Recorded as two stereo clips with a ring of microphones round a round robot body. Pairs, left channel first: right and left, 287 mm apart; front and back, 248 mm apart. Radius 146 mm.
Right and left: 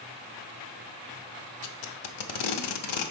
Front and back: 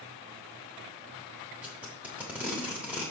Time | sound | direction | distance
1.6 | tape being pulled | 95° right | 0.9 m